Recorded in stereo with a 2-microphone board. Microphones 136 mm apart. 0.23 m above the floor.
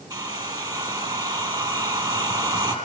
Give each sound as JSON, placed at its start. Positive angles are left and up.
{"t": 0.1, "sound": "a hair dryer", "side_deg": -30, "distance_m": 6.5}